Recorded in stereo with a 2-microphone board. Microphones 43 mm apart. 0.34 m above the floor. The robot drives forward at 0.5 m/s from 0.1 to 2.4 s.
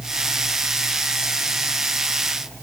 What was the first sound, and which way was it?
Only background noise.